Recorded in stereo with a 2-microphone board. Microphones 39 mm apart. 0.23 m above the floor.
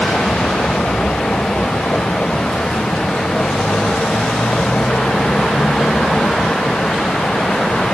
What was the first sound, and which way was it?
A vehicle, 25° left (ahead or behind).